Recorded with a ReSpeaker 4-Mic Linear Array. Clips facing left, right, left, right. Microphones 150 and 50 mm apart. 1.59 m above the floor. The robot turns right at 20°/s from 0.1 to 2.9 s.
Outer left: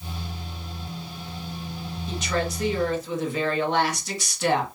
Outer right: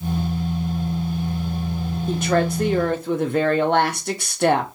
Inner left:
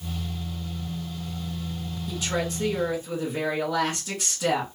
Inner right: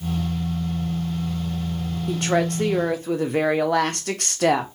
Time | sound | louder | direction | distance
2.1 | a woman speaking | outer right 7 dB, inner right 7 dB | 55° right (ahead or behind) | 0.8 m